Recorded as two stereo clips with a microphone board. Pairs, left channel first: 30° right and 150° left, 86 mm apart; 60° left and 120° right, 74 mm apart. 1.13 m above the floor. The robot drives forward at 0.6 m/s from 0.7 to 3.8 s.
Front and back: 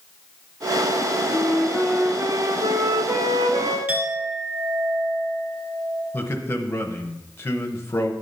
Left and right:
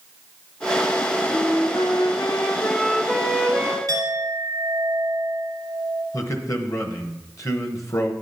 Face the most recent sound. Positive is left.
turn(degrees=25)